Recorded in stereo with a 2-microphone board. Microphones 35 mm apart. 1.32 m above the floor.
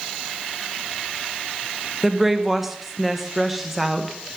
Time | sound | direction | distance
2.0 | a woman speaking | 5° right (ahead or behind) | 1.2 m